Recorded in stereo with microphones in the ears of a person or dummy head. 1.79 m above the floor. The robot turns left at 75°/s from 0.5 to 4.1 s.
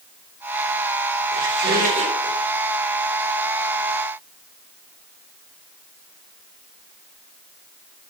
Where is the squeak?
90° right, 6.5 m; by 2.3 s 165° right, 6.5 m.